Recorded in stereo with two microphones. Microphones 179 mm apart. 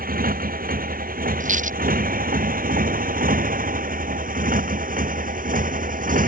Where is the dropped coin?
50° right (ahead or behind).